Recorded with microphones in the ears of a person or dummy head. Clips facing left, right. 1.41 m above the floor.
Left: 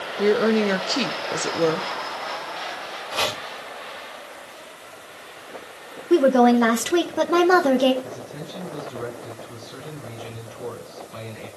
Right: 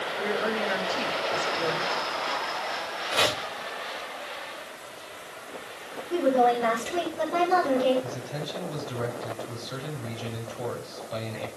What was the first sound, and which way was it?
A woman speaking, 55° left (ahead or behind).